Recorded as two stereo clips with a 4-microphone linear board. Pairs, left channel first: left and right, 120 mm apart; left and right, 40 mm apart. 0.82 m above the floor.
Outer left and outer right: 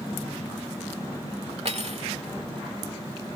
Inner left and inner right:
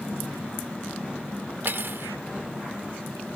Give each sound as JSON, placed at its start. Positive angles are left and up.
{"t": 1.6, "sound": "cutlery clinking", "side_deg": -65}